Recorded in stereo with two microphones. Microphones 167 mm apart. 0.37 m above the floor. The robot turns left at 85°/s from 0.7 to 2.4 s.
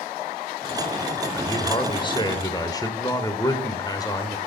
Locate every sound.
1.3 s a man speaking: 15° left (ahead or behind), 0.9 m; by 4.4 s 20° left (ahead or behind), 0.9 m